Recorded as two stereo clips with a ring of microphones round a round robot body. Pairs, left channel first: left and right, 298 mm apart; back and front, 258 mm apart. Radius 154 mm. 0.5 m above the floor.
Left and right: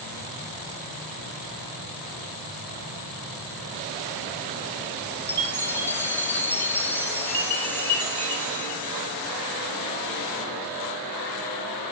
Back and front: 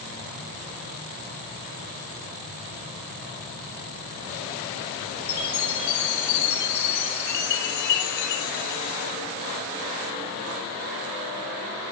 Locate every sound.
5.3 s a chime: 175° left, 2.5 m